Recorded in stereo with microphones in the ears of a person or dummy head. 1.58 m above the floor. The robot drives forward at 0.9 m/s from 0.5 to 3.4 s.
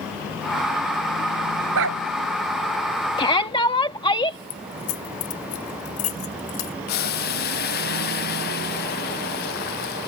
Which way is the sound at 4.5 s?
45° left (ahead or behind).